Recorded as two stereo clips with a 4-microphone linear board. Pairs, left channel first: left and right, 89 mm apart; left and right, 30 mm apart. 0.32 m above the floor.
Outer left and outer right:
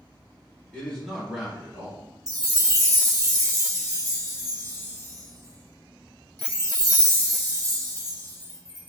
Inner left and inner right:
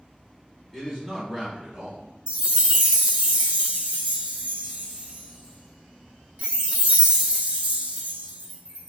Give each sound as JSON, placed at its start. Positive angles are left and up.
{"t": 0.7, "sound": "a man speaking", "side_deg": 15, "distance_m": 1.5}
{"t": 2.3, "sound": "a chime", "side_deg": -40, "distance_m": 0.6}